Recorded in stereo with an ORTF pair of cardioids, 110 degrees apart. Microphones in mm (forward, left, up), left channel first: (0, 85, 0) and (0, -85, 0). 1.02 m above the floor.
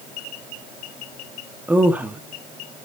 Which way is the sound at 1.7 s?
10° right.